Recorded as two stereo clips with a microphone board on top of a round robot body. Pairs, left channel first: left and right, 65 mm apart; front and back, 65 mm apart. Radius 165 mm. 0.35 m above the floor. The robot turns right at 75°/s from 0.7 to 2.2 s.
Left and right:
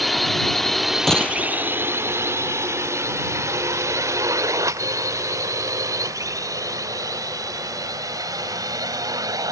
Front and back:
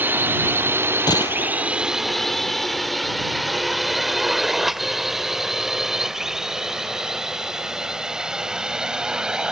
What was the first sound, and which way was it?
A drone, straight behind.